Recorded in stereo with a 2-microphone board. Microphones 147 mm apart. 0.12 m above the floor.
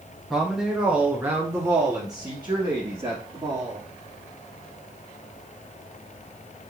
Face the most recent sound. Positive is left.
turn(degrees=-40)  # may be behind; listen again after turning